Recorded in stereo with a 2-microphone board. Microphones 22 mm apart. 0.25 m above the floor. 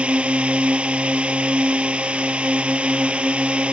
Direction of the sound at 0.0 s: 65° right (ahead or behind).